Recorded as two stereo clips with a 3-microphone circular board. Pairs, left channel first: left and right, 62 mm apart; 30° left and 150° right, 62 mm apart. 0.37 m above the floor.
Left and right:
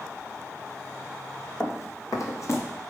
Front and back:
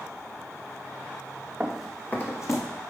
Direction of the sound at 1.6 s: 135° left.